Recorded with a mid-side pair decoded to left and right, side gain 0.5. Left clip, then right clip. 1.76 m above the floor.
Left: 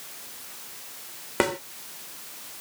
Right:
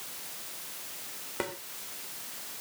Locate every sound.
1.4 s a snare drum: 60° left